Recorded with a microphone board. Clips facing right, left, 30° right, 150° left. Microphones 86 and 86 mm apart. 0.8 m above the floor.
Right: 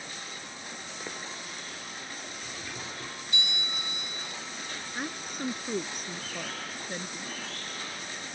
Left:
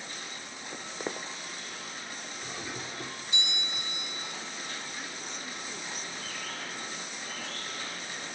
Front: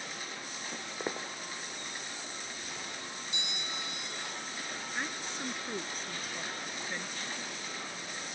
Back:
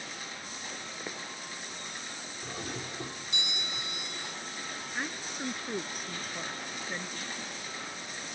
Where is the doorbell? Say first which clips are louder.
Left 4 dB, back 4 dB; 155° left.